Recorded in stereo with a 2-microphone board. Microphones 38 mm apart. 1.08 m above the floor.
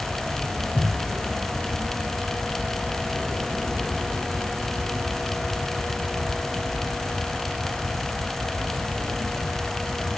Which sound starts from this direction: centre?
A thud, at 0.8 s.